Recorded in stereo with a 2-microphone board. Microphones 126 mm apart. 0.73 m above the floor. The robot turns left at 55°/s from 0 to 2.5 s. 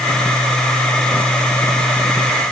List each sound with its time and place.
Only background noise.